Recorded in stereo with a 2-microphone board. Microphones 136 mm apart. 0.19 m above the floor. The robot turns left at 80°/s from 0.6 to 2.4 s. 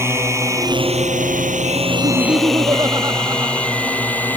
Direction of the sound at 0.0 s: 20° right (ahead or behind).